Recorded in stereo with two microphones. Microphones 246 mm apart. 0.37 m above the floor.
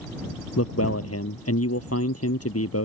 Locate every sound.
0.6 s a man speaking: 70° left (ahead or behind)